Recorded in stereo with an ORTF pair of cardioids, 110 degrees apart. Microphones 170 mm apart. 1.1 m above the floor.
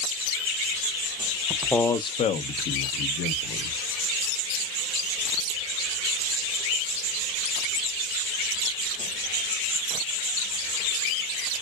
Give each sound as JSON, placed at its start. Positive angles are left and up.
{"t": 1.5, "sound": "a man speaking", "azimuth_deg": -10, "distance_m": 0.6}